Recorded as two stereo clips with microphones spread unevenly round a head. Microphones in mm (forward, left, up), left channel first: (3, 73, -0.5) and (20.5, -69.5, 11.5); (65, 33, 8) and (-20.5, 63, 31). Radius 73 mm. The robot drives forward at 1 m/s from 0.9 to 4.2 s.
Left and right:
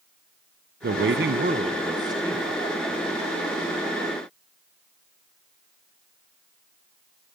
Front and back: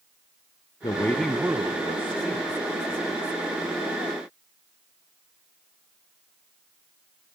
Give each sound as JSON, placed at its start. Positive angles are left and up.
{"t": 0.8, "sound": "a man speaking", "azimuth_deg": -70, "distance_m": 0.7}